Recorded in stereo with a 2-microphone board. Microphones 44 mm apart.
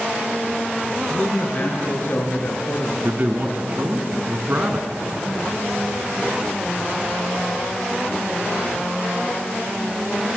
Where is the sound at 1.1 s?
35° left (ahead or behind), 4.5 m; by 2.9 s 45° left (ahead or behind), 4.5 m.